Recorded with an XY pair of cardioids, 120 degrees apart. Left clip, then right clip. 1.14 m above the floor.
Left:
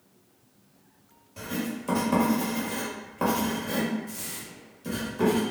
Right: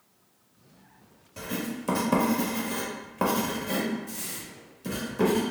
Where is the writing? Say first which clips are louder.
Even; 25° right, 1.4 m.